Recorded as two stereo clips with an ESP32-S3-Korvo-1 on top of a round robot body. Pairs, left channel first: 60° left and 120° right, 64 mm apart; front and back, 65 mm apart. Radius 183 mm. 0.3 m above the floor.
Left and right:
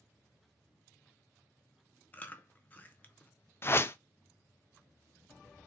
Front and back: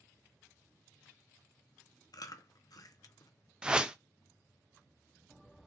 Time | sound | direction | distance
2.1 | chewing | straight ahead | 0.7 m
3.6 | a whoosh | 105° left | 0.5 m